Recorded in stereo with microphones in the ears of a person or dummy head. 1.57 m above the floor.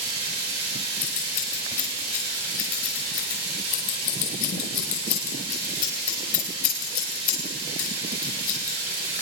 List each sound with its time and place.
0.0 s running water: 25° right (ahead or behind), 3.5 m
1.0 s scissors: 50° left (ahead or behind), 4 m